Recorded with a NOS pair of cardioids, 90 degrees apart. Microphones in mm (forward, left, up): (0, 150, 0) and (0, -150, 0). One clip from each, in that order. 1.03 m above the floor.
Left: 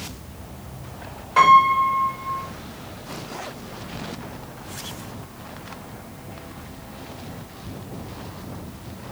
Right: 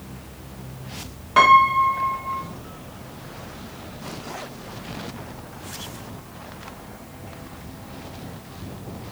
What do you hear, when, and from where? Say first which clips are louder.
1.4 s a piano: even; 30° right, 1.0 m